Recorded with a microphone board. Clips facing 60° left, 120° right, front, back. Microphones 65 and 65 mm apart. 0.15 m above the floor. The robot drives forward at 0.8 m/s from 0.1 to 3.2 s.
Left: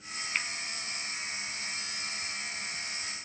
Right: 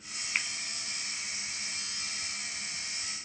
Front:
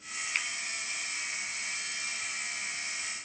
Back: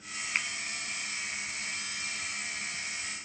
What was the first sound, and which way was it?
A finger snap, 170° left.